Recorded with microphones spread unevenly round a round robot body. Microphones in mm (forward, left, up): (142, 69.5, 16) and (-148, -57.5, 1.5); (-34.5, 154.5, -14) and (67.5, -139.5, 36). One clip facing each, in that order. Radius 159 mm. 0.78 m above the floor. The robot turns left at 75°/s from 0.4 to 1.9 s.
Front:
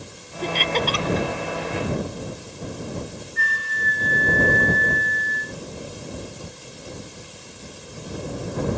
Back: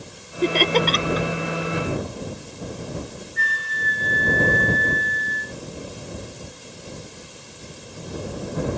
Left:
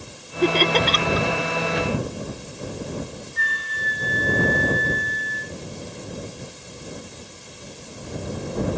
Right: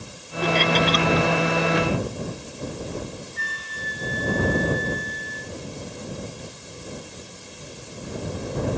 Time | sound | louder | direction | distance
0.4 | laughter | back 6 dB, left 3 dB | 175° left | ?
3.4 | a flute | front 1 dB, left 1 dB | 40° left | ?